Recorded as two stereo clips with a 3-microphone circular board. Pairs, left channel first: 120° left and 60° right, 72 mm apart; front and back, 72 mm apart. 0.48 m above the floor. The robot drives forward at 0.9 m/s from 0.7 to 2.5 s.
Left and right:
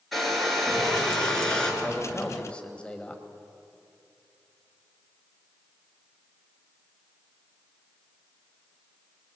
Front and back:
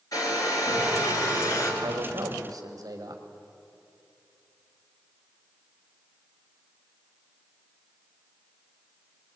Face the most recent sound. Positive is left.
turn(degrees=-165)